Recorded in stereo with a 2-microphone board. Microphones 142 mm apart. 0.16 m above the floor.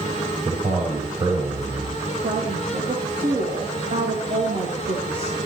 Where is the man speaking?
35° right (ahead or behind), 5 m.